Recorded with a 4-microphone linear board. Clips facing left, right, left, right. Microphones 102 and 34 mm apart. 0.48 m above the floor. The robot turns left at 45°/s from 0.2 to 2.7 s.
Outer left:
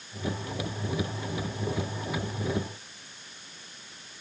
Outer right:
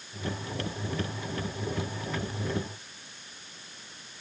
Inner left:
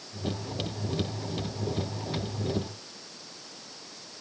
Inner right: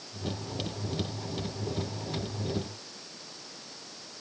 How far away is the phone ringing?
No phone ringing in this recording.